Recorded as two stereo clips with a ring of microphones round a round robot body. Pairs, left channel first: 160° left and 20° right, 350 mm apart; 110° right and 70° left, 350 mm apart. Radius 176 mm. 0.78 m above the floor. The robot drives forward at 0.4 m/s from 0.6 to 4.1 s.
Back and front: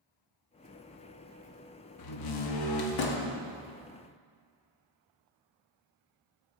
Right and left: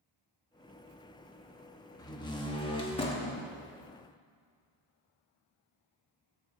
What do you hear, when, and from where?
2.0 s a door slam: 170° left, 0.8 m; by 3.4 s 175° left, 1.3 m